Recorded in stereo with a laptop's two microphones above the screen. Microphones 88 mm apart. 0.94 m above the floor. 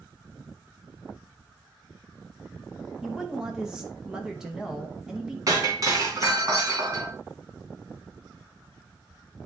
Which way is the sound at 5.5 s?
40° right (ahead or behind).